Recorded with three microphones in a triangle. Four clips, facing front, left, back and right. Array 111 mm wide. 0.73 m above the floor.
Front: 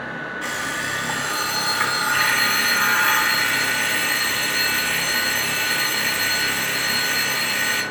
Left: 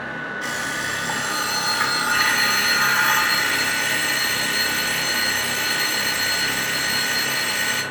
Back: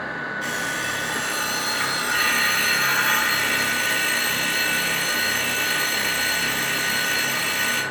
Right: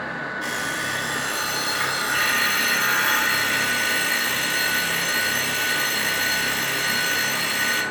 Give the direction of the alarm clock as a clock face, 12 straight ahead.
10 o'clock.